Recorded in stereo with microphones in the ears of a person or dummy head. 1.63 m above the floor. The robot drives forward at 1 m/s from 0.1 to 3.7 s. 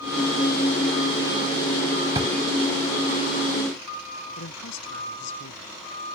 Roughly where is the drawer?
Right.